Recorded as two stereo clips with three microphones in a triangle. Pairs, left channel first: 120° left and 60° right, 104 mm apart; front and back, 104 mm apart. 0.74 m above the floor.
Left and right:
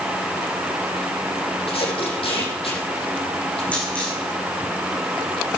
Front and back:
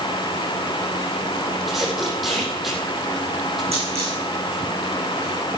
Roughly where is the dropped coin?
Behind.